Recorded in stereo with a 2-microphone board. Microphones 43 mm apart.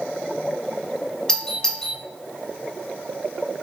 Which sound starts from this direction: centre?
A doorbell, at 1.3 s.